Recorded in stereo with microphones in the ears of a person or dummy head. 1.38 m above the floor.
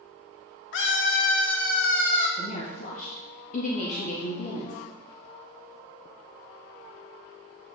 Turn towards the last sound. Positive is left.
turn(degrees=45)  # may be behind; listen again after turning